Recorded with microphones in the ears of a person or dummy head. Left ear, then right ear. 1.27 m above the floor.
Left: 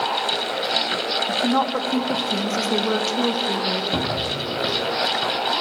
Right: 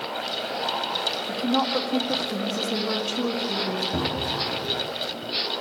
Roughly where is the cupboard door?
Left.